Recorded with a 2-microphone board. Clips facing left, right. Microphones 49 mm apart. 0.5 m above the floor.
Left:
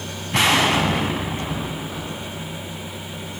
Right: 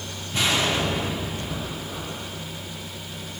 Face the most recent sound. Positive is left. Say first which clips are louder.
# left 6 dB
turn(degrees=85)